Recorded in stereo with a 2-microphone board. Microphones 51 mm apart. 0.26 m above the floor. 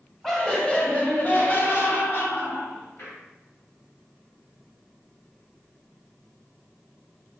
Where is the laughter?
5° right (ahead or behind), 1.0 m; by 3.1 s 50° left (ahead or behind), 2 m.